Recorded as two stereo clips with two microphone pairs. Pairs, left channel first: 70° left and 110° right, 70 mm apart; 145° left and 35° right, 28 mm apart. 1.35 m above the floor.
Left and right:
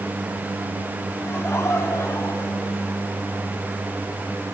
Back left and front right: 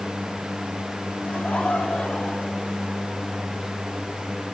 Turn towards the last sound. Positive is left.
turn(degrees=100)